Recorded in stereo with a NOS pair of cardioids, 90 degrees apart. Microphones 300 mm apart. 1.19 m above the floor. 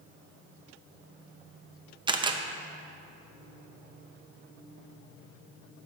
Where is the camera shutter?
15° right, 0.6 m.